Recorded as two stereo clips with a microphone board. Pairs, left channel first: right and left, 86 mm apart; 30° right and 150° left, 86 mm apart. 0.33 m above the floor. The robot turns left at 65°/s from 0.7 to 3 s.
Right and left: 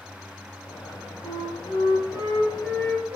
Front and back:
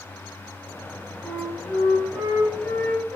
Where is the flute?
85° left, 3 m; by 3.2 s 30° right, 3 m.